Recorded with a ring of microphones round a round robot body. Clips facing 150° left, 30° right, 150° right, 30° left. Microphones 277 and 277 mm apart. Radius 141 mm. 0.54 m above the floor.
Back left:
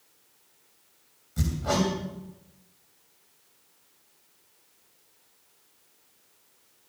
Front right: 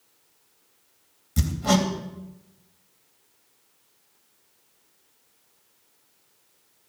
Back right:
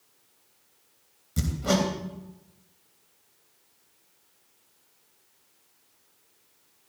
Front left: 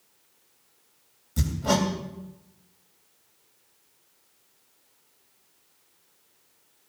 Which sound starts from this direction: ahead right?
Hammering, at 1.4 s.